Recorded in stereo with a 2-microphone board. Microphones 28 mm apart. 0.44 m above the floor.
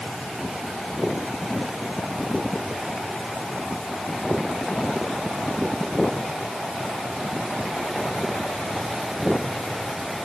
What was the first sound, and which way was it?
Only background noise.